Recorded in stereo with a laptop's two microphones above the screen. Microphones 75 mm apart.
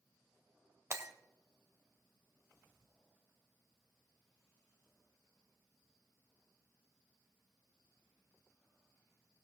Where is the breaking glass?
40° right (ahead or behind), 1.8 m.